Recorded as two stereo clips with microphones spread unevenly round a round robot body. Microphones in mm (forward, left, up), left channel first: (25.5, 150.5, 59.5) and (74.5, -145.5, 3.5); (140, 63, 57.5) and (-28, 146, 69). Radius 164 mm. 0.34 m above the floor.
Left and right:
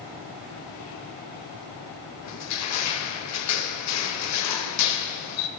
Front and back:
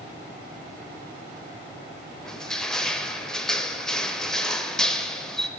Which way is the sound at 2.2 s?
60° left.